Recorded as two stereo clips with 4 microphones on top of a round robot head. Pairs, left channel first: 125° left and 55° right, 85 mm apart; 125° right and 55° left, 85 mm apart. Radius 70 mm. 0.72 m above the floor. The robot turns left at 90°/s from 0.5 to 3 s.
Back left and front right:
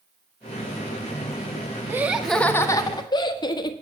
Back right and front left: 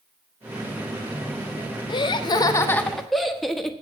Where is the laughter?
115° right, 1.3 m; by 3.7 s 145° left, 1.3 m.